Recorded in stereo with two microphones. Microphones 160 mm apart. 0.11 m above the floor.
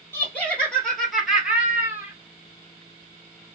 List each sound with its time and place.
0.1 s laughter: 15° left (ahead or behind), 2 m; by 2.1 s 15° right (ahead or behind), 2 m